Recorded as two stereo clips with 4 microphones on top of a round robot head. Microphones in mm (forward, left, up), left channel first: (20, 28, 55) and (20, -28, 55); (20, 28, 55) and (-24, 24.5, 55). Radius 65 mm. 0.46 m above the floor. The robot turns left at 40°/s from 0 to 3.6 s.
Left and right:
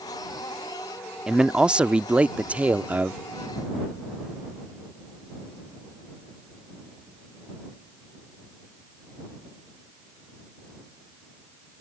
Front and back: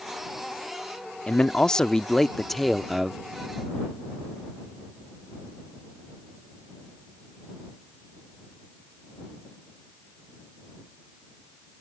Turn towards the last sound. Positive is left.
turn(degrees=-125)